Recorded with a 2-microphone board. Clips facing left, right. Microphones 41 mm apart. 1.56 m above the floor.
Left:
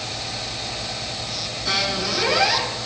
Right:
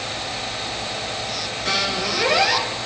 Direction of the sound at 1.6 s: 65° right (ahead or behind).